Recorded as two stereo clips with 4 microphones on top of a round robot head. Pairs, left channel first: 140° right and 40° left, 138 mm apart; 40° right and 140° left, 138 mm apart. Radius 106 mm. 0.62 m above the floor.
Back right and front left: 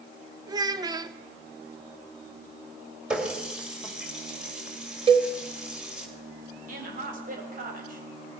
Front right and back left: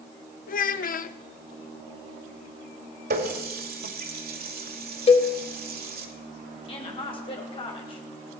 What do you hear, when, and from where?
0.5 s a child speaking: 20° right, 0.7 m
3.1 s a running tap: 125° left, 2 m
5.1 s a cowbell: 5° right, 1.3 m
6.7 s a woman speaking: 15° left, 4 m